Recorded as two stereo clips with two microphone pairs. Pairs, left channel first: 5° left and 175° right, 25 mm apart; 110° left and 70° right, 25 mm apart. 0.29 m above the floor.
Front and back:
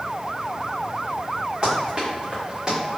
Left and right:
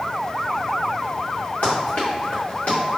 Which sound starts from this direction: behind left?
Running footsteps, at 1.6 s.